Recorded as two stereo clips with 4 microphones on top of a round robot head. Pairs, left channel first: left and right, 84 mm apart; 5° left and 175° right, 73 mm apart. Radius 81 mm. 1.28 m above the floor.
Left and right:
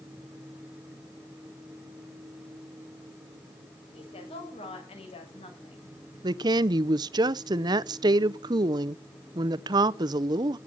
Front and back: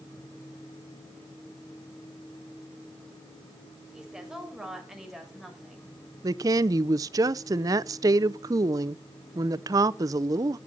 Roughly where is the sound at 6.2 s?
Behind right.